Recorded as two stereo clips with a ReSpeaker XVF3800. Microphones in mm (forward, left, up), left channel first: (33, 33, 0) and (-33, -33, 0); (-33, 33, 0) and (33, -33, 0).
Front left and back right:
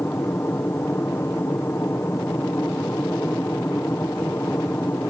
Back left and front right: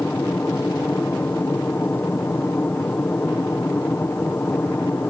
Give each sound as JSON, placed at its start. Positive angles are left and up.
{"t": 0.0, "sound": "an aircraft", "azimuth_deg": 85}